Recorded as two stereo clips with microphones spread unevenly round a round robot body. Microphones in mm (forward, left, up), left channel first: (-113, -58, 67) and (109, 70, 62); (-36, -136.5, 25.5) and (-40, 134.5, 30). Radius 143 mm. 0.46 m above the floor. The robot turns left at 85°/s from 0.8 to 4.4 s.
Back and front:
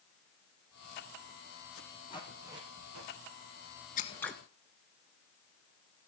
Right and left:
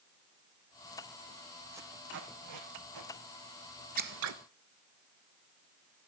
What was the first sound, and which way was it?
Tape being pulled, 175° left.